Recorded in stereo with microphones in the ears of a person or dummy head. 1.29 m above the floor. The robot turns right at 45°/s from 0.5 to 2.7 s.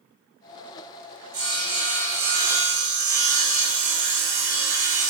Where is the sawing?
155° right, 1.1 m; by 5.1 s 95° right, 1.1 m.